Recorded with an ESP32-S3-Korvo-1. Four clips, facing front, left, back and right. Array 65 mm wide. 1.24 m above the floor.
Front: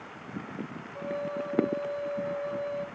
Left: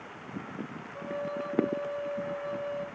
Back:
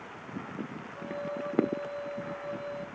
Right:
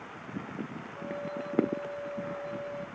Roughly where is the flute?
Ahead left.